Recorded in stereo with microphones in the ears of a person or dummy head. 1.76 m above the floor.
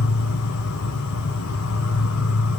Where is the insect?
75° left (ahead or behind), 1.2 m.